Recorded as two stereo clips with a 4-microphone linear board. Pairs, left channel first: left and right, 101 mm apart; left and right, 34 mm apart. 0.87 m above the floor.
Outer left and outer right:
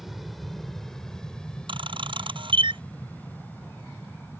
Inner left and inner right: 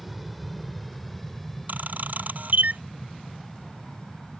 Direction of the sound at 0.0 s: Centre (ahead or behind).